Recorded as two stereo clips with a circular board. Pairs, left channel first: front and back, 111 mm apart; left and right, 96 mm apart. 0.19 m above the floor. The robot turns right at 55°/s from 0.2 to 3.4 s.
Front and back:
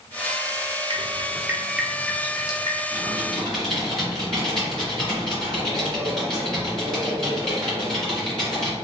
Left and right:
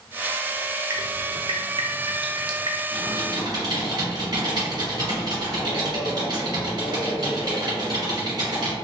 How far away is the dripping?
About 0.6 m.